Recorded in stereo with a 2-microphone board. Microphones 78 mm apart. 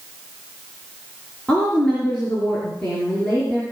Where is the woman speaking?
10° left (ahead or behind), 3.5 m.